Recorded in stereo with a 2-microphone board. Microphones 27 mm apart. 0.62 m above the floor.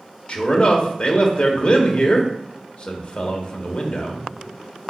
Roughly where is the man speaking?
Left.